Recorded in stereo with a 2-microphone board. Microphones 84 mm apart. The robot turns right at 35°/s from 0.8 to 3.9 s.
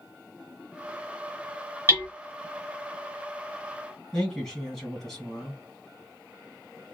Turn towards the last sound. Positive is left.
turn(degrees=5)  # may be behind; listen again after turning